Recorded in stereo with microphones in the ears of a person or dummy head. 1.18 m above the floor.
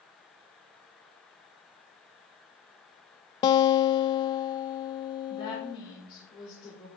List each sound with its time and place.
3.4 s a guitar: 30° left (ahead or behind), 0.5 m
5.3 s a woman speaking: 40° left (ahead or behind), 4 m